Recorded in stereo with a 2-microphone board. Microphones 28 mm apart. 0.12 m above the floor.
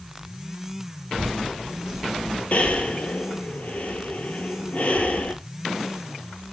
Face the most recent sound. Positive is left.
turn(degrees=55)  # may be behind; listen again after turning